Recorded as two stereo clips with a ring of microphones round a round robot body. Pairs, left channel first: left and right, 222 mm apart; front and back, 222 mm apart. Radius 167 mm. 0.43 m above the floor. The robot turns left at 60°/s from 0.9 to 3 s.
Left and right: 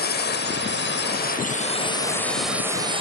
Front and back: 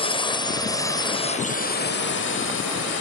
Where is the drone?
60° left; by 3.0 s 25° right.